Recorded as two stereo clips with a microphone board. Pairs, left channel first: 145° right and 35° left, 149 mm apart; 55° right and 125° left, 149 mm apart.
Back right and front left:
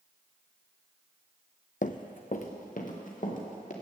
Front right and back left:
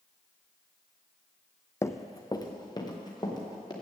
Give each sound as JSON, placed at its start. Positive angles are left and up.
{"t": 1.8, "sound": "running footsteps", "azimuth_deg": -125, "distance_m": 0.5}